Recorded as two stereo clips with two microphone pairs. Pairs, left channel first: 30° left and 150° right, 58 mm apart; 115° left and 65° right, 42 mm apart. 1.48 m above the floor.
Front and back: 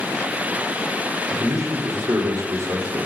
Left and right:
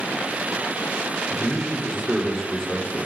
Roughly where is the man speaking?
Behind right.